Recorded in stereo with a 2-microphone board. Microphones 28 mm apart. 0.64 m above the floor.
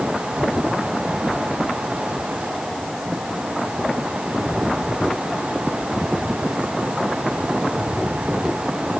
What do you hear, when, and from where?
Only background noise.